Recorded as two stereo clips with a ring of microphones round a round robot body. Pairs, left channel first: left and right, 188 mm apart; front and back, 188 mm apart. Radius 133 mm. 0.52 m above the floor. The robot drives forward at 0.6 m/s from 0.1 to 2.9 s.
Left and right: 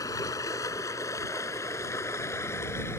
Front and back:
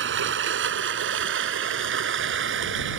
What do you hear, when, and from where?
0.0 s running water: 170° left